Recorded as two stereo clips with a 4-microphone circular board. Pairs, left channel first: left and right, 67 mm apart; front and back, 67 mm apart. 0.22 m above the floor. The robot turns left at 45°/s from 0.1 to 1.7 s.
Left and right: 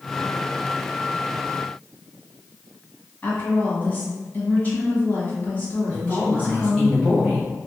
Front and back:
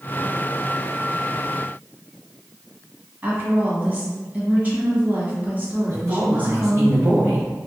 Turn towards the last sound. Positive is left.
turn(degrees=165)